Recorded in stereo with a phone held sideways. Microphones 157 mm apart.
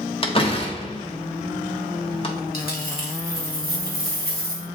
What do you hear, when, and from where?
0.2 s a door slam: 35° left (ahead or behind), 1.3 m
2.5 s a dropped coin: 75° left (ahead or behind), 2 m